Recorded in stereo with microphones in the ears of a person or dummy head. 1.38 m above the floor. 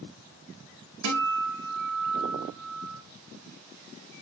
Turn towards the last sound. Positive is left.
turn(degrees=-75)  # may be behind; listen again after turning